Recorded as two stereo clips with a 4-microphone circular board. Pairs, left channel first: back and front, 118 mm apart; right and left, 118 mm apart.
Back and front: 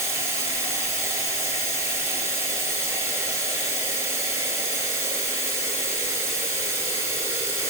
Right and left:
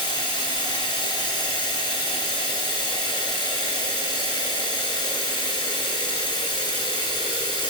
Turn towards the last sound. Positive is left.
turn(degrees=-60)